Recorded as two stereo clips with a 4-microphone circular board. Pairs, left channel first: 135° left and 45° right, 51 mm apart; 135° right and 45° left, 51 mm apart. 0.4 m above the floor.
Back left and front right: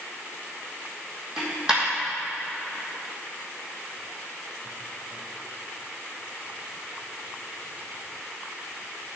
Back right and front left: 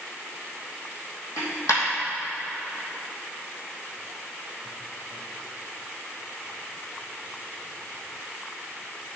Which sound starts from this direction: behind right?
A dropped coin, at 1.4 s.